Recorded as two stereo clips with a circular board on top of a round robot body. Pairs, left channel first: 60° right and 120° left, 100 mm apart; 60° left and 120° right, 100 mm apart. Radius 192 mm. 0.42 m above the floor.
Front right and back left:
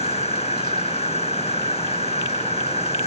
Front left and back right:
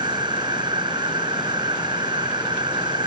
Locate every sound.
0.0 s an insect: 75° right